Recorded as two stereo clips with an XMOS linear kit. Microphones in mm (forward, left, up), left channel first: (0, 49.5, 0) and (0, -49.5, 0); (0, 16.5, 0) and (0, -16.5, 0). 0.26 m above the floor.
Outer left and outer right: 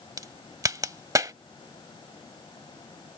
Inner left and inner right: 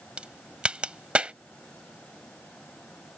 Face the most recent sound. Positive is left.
turn(degrees=-35)  # may be behind; listen again after turning